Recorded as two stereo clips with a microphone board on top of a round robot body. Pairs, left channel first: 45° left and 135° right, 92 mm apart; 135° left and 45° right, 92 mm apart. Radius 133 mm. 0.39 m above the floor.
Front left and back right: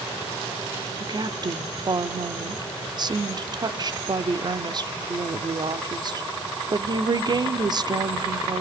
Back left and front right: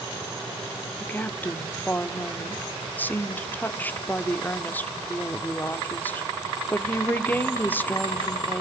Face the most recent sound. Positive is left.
turn(degrees=-160)